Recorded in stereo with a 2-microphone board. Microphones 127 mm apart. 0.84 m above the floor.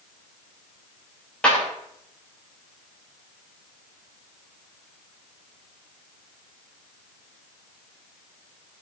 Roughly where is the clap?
Centre.